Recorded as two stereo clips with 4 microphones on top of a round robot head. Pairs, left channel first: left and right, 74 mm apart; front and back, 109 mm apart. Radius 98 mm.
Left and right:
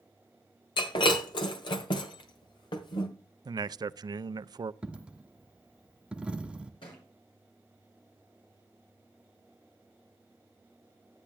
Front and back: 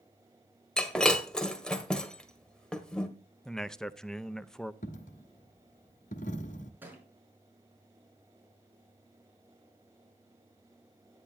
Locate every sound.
0.8 s breaking glass: 85° left, 1.6 m
3.5 s a man speaking: 85° right, 0.5 m
4.8 s a dropped coin: 15° right, 1.3 m
6.8 s a thud: 110° left, 4.5 m